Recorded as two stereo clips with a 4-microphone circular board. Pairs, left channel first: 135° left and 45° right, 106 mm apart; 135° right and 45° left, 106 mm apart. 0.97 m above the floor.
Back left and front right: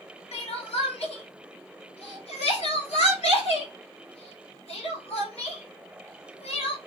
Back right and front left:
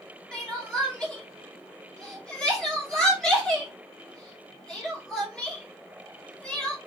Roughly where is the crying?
Behind left.